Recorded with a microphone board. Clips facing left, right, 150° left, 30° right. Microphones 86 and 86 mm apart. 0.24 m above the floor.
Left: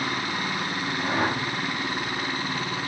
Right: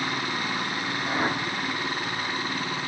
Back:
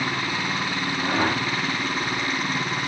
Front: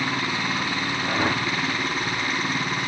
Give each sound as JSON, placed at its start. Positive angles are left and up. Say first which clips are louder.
{"t": 1.0, "sound": "a whoosh", "louder": "left 2 dB, back 2 dB", "azimuth_deg": 75, "distance_m": 7.0}